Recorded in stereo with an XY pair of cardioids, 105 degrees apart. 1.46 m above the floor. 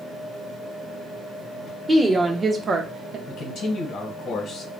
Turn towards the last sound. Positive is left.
turn(degrees=65)